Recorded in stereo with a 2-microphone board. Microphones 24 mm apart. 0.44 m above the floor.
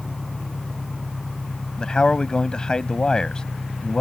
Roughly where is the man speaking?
Left.